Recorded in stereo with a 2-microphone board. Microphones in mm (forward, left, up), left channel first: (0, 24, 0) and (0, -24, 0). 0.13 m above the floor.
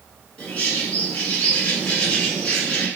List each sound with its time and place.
0.4 s a bird: 25° left (ahead or behind), 1.6 m